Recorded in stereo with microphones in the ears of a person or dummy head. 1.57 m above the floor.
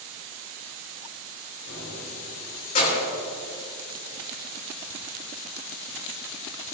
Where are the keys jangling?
60° left (ahead or behind), 4.5 m; by 3.1 s 40° left (ahead or behind), 3.5 m.